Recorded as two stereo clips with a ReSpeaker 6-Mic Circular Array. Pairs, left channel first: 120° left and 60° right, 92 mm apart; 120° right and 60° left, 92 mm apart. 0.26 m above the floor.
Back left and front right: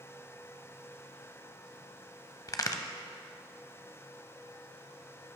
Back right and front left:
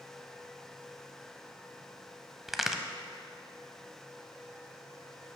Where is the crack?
145° left, 0.5 m.